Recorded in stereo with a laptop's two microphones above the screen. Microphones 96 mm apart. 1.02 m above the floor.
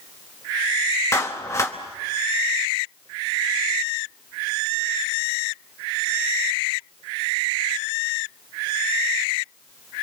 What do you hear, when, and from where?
1.1 s a clap: 30° left (ahead or behind), 0.9 m